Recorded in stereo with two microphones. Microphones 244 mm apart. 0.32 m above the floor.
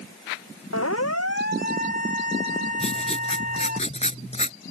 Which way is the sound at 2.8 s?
25° left (ahead or behind).